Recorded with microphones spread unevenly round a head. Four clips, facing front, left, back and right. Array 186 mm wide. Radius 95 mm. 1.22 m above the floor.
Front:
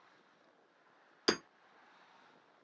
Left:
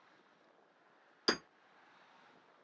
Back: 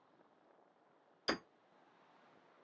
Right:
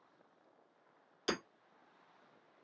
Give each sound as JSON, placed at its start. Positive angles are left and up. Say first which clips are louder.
{"t": 1.3, "sound": "hammering", "louder": "left 2 dB, front 6 dB", "azimuth_deg": 20, "distance_m": 1.6}